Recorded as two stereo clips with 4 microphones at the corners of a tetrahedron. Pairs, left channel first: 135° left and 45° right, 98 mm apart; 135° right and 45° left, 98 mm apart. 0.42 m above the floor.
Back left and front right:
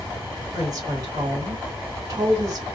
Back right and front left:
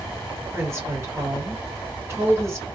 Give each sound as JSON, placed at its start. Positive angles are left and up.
{"t": 0.5, "sound": "a woman speaking", "azimuth_deg": -5, "distance_m": 1.7}